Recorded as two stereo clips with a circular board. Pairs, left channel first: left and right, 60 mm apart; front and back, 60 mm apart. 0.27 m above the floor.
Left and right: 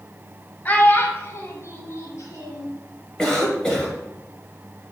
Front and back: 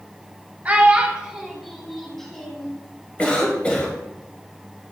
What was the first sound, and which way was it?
A child speaking, 130° left.